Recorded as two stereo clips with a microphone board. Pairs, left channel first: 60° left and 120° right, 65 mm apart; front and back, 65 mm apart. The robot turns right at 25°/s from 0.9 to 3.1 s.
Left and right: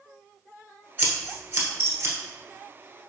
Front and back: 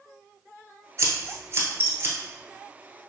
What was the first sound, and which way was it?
Scissors, 165° right.